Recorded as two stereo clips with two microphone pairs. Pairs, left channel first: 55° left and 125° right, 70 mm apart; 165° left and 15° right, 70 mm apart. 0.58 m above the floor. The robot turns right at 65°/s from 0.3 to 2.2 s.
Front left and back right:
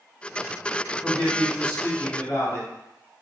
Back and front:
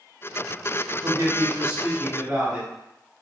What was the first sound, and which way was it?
A man speaking, 10° right.